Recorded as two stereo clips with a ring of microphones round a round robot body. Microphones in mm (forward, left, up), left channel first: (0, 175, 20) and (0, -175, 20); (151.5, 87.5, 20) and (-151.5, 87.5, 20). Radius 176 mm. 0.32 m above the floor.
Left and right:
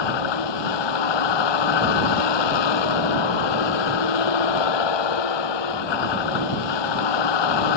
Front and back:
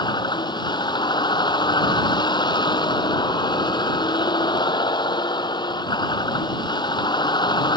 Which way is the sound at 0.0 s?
75° left.